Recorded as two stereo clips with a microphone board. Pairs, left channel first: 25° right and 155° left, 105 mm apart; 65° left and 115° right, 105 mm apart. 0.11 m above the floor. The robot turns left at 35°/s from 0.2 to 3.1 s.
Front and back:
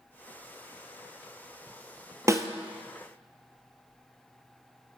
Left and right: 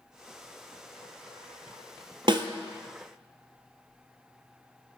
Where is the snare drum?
145° right, 0.6 m; by 2.5 s 150° right, 0.6 m.